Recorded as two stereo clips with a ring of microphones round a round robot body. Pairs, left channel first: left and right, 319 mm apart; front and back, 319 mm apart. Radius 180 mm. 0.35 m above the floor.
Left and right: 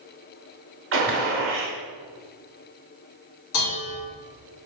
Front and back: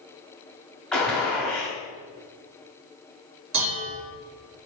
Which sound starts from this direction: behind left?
Dishes clattering, at 3.5 s.